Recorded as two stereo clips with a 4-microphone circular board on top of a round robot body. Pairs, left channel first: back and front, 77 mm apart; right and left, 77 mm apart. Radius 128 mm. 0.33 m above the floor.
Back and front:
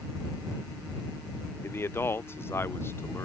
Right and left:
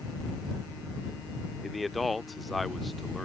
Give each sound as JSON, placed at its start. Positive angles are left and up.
{"t": 1.6, "sound": "a man speaking", "azimuth_deg": 180}